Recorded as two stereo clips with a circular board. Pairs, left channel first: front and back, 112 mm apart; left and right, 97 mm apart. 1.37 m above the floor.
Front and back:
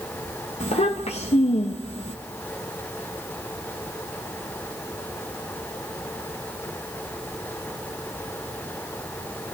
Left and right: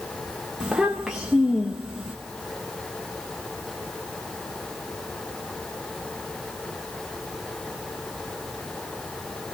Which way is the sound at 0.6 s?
5° right.